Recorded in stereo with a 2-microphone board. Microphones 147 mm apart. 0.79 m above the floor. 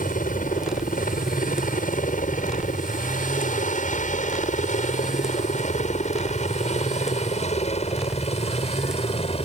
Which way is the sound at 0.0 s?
65° left (ahead or behind).